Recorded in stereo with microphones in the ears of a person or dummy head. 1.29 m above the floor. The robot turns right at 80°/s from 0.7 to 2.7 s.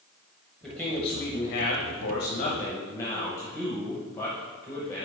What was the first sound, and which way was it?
A man speaking, 5° left.